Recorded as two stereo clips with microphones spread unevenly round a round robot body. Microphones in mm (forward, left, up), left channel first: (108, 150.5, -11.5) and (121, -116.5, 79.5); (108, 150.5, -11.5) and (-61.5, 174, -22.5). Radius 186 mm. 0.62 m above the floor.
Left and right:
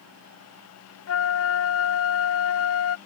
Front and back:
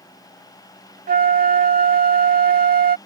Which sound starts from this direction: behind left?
A flute, at 1.1 s.